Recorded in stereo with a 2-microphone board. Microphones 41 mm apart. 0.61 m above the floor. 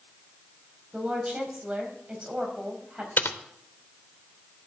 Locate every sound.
0.9 s a woman speaking: 25° right (ahead or behind), 4.5 m
3.2 s typing on a keyboard: 60° left (ahead or behind), 1.0 m